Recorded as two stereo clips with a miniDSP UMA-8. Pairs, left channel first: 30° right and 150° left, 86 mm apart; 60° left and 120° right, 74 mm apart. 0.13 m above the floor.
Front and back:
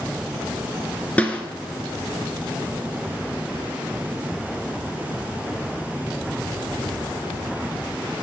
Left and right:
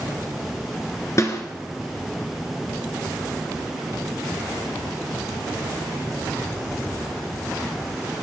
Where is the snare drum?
40° left, 2 m.